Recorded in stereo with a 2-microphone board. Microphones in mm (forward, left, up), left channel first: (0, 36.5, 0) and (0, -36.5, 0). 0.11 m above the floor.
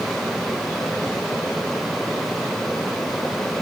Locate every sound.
Only background noise.